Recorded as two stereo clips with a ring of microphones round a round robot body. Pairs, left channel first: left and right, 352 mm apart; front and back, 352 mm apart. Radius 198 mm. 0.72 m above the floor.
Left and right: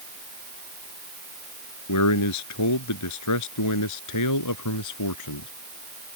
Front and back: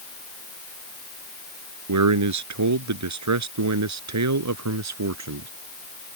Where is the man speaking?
140° left; by 5.5 s 135° left.